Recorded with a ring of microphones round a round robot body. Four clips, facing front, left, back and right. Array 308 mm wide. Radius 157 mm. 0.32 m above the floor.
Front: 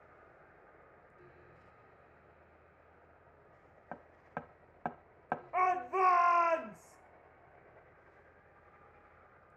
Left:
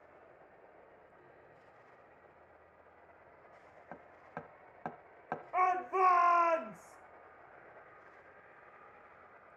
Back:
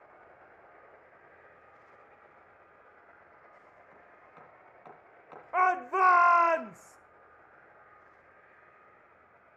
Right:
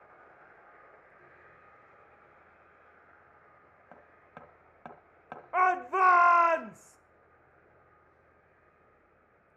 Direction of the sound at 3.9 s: 15° left.